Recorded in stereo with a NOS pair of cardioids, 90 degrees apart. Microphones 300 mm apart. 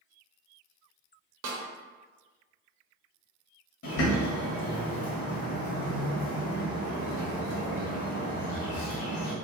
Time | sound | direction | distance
1.4 | a snare drum | 55° right | 1.0 m
3.8 | a bird | 50° left | 1.6 m